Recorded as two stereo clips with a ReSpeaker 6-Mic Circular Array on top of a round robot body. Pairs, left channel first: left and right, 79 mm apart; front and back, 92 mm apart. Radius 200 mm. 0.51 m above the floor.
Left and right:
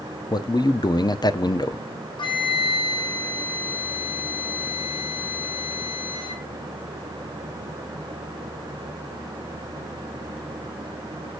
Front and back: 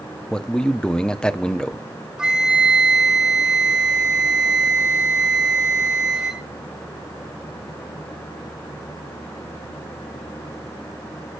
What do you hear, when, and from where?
0.3 s a man speaking: 80° left, 1.2 m
2.2 s a flute: 100° left, 3.5 m